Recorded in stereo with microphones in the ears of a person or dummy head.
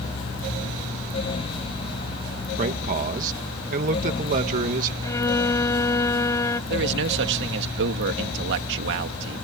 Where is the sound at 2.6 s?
45° right (ahead or behind).